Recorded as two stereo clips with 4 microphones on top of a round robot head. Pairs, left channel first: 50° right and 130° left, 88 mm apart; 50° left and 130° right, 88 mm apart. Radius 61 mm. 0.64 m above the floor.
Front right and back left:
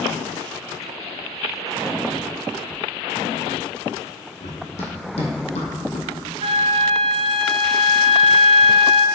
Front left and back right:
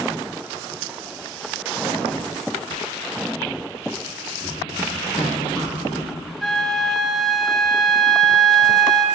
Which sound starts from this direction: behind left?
A flute, at 6.4 s.